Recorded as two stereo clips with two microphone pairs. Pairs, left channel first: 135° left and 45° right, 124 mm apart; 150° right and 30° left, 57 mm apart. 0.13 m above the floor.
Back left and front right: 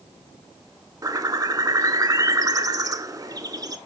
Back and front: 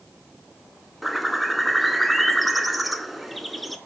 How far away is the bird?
About 0.5 m.